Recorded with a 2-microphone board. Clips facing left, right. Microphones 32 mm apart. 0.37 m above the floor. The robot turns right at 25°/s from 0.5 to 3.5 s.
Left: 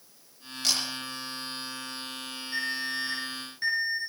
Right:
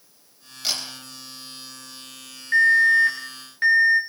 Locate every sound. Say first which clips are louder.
0.6 s a camera shutter: right 1 dB; 10° right (ahead or behind), 8 m
2.5 s an alarm: right 17 dB; 65° right (ahead or behind), 6 m; by 4.0 s 40° right (ahead or behind), 6 m